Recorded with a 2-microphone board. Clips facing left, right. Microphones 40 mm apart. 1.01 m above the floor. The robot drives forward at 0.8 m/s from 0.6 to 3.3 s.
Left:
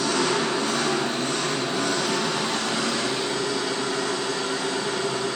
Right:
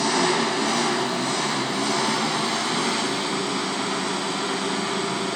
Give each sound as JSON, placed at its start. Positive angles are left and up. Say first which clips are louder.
{"t": 0.0, "sound": "an engine running", "louder": "right 2 dB", "side_deg": -85, "distance_m": 5.5}